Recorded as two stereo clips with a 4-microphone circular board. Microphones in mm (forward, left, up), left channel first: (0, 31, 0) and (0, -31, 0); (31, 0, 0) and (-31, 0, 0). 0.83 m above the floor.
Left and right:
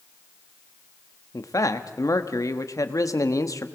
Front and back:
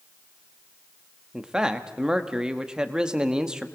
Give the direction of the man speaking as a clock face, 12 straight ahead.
9 o'clock.